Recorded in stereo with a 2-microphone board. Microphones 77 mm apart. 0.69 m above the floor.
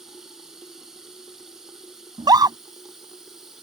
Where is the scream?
60° right (ahead or behind).